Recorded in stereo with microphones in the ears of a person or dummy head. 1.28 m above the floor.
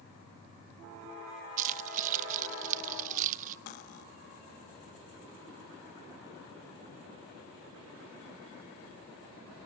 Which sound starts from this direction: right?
Keys jangling, at 1.6 s.